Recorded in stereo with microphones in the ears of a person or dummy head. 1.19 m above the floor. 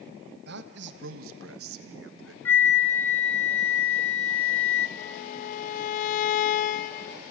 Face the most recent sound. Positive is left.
turn(degrees=45)  # may be behind; listen again after turning